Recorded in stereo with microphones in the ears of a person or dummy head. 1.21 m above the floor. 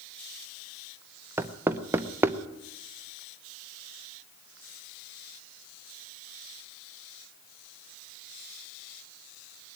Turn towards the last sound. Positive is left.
turn(degrees=-10)  # may be behind; listen again after turning